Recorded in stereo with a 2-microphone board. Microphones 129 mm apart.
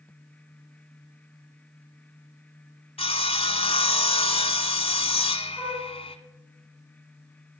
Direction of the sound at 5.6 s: Centre (ahead or behind).